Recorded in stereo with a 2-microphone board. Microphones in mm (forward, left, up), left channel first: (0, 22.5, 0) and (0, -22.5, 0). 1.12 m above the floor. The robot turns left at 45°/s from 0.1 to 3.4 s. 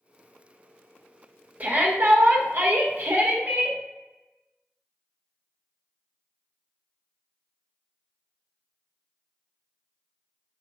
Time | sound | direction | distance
1.6 | a shout | 45° right | 1.5 m